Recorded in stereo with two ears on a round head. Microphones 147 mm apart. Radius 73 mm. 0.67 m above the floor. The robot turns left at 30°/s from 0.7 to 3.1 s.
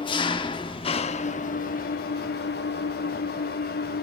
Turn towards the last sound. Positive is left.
turn(degrees=75)